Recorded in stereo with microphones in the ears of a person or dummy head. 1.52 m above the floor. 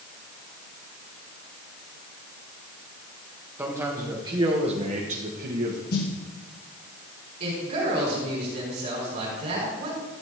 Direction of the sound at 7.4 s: 50° right (ahead or behind).